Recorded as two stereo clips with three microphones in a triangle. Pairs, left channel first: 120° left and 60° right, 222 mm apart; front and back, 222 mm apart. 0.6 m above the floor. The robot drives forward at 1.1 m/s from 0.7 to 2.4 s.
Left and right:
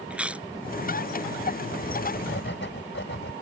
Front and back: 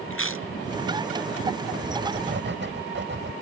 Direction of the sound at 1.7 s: 140° left.